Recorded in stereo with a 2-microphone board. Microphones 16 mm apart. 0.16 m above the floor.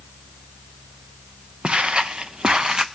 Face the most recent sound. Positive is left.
turn(degrees=-40)  # may be behind; listen again after turning